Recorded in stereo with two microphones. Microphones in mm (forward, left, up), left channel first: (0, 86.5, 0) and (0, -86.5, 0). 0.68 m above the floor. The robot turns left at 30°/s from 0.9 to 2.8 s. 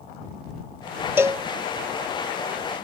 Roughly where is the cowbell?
Centre.